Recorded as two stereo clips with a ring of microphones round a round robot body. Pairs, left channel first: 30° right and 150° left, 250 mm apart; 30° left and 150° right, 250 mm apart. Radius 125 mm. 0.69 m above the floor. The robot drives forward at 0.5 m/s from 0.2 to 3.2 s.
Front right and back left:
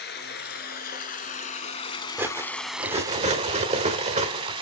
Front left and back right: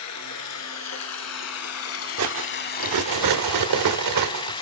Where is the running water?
15° left, 1.6 m; by 4.6 s 90° left, 0.6 m.